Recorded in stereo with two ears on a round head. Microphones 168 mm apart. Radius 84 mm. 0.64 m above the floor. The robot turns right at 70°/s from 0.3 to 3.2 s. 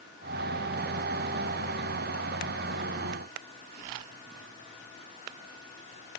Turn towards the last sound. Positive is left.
No sound to turn to.